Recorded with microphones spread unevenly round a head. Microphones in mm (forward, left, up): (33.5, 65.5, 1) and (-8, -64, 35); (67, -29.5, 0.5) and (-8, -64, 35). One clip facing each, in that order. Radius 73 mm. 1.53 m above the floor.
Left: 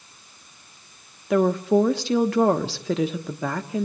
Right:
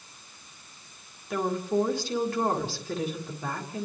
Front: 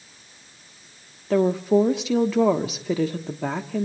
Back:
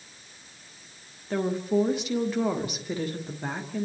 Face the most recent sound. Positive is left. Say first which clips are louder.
# left 8 dB, front 7 dB
turn(degrees=40)